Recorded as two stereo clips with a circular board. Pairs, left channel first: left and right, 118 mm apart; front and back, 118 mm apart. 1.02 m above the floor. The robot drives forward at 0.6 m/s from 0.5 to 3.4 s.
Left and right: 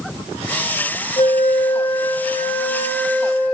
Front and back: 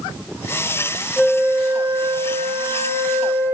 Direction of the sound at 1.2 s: 85° left.